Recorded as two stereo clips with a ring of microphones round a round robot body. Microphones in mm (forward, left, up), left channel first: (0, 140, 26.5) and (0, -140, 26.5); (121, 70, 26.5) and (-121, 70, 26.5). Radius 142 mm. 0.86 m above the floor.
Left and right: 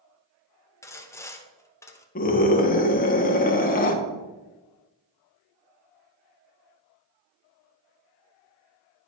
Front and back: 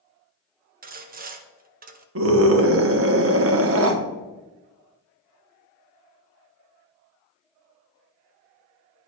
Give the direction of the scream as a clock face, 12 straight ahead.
7 o'clock.